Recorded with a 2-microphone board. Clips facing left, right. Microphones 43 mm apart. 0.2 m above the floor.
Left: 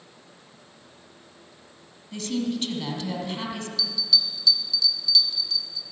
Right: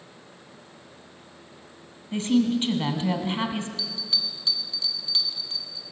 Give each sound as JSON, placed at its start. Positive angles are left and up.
{"t": 2.1, "sound": "a woman speaking", "side_deg": -30, "distance_m": 1.4}
{"t": 3.8, "sound": "a bell", "side_deg": -35, "distance_m": 1.1}